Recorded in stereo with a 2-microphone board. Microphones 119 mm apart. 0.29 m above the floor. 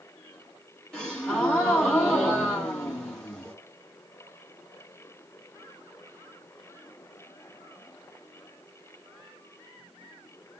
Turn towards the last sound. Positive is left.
turn(degrees=10)  # may be behind; listen again after turning